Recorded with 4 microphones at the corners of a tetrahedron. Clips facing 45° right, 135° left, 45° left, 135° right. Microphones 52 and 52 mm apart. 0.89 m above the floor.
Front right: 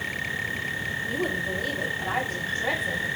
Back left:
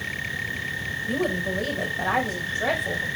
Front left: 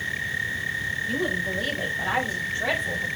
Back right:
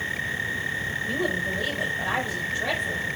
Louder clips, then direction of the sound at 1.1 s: Back left 4 dB, back right 1 dB; 155° left.